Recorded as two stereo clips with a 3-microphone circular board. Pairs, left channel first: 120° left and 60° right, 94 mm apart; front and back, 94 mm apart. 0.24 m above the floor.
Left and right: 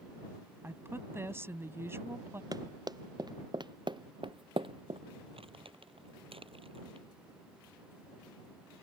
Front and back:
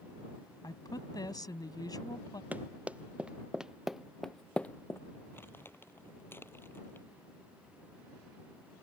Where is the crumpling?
65° right.